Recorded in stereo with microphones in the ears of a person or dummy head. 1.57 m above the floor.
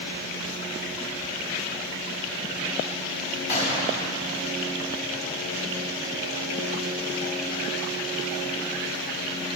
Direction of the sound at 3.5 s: 15° right (ahead or behind).